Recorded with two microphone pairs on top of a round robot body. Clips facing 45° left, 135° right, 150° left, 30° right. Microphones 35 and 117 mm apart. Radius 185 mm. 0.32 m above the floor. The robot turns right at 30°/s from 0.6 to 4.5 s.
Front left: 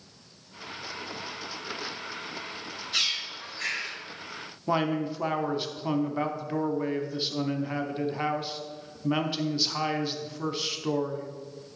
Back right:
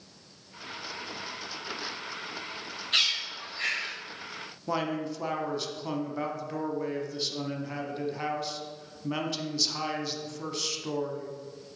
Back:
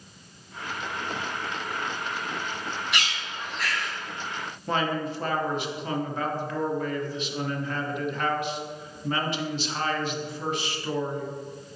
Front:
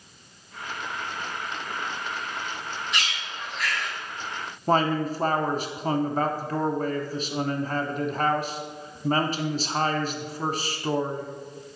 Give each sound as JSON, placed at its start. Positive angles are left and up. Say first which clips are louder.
{"t": 2.9, "sound": "a bird", "louder": "back right 2 dB, back 1 dB", "azimuth_deg": 180, "distance_m": 3.0}
{"t": 4.7, "sound": "a man speaking", "louder": "front left 4 dB, front 5 dB", "azimuth_deg": -10, "distance_m": 1.1}